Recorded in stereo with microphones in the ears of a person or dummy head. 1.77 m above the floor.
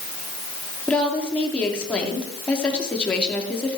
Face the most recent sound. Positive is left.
turn(degrees=10)  # may be behind; listen again after turning